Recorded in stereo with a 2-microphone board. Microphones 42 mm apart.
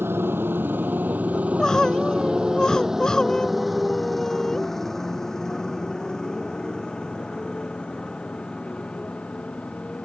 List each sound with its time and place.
0.0 s a motorcycle: 65° right (ahead or behind); by 10.1 s 25° left (ahead or behind)
1.4 s crying: 15° left (ahead or behind)